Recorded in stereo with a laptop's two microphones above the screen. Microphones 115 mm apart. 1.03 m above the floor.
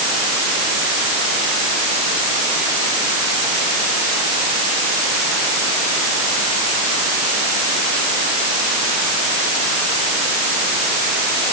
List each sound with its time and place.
Only background noise.